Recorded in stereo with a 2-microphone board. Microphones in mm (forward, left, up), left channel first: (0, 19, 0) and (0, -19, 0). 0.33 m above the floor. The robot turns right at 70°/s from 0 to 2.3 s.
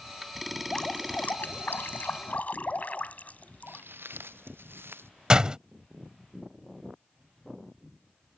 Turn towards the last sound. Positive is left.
turn(degrees=-20)  # may be behind; listen again after turning